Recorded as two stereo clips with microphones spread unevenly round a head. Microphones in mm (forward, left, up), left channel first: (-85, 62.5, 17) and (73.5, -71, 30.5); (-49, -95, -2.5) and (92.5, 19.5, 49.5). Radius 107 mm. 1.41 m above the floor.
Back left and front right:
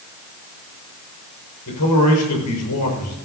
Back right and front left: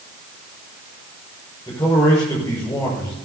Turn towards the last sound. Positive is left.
turn(degrees=135)